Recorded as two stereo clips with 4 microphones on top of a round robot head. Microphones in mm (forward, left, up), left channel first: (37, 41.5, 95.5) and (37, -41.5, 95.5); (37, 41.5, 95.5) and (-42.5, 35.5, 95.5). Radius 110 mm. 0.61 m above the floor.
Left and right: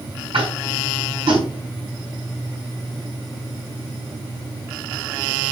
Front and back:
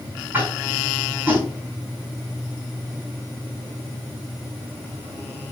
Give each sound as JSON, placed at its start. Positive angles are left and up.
{"t": 0.3, "sound": "tapping", "azimuth_deg": -105, "distance_m": 5.0}